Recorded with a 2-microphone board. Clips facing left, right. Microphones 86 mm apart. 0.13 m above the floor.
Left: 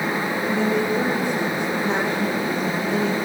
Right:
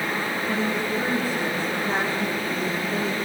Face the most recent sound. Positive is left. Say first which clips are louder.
# left 5 dB
turn(degrees=75)  # may be behind; listen again after turning